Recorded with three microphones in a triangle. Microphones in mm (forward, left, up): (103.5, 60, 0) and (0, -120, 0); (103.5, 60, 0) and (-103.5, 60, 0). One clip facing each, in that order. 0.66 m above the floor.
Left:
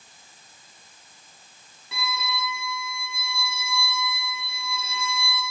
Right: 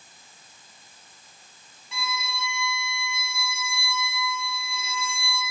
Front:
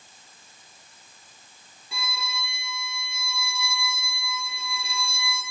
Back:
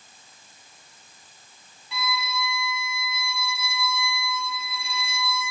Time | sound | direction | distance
1.9 | a violin | 40° left | 1.7 m